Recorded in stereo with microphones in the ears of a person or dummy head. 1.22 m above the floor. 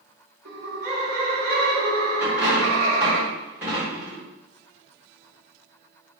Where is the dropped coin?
10° right (ahead or behind), 1.8 m.